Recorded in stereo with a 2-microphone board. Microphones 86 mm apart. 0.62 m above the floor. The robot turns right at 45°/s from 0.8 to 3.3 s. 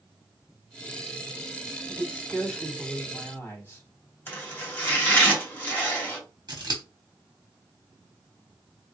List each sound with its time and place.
1.9 s a man speaking: 35° right, 1.9 m; by 3.8 s 30° left, 1.9 m
4.3 s chopping: 25° left (ahead or behind), 2.5 m
6.5 s scissors: 55° right (ahead or behind), 1.2 m